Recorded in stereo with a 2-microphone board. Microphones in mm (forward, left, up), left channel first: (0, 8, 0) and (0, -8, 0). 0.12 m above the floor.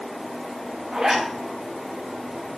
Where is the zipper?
50° right (ahead or behind), 8.5 m.